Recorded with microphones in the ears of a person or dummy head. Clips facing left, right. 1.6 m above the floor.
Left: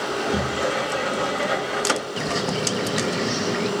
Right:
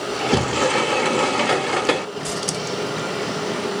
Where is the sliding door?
85° right, 0.5 m.